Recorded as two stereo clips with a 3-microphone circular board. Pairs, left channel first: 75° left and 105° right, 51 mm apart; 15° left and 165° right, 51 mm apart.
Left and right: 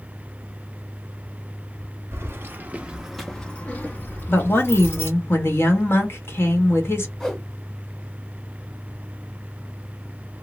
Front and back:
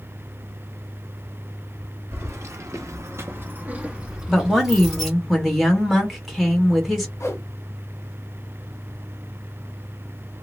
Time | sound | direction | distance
2.1 | keys jangling | 135° right | 0.8 m
4.3 | a woman speaking | 105° left | 1.4 m
7.2 | a whoosh | 5° right | 0.9 m